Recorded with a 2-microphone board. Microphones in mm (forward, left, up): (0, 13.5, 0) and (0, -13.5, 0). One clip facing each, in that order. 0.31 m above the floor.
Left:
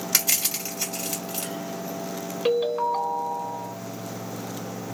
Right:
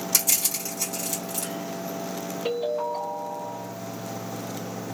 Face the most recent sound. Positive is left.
turn(degrees=45)  # may be behind; listen again after turning